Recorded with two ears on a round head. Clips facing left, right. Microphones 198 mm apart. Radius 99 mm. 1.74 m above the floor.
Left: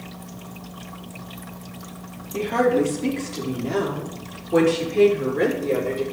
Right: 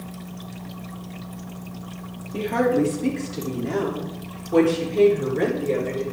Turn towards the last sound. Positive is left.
turn(degrees=5)  # may be behind; listen again after turning